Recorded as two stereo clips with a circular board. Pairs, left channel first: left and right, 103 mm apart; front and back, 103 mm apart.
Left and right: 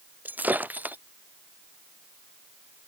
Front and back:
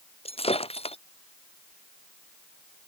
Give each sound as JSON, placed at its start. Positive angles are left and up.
{"t": 0.2, "sound": "breaking glass", "azimuth_deg": -15}